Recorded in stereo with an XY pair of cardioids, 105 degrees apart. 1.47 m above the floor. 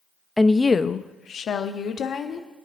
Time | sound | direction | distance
0.4 | a woman speaking | 10° left | 0.5 m